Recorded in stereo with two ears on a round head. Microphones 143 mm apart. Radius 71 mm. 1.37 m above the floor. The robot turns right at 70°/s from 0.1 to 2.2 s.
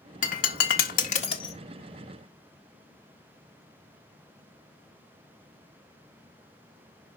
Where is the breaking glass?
50° left (ahead or behind), 1.5 m; by 1.6 s 25° left (ahead or behind), 1.5 m.